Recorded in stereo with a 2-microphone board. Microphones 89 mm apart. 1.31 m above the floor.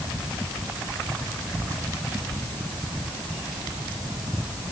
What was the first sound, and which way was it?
Only background noise.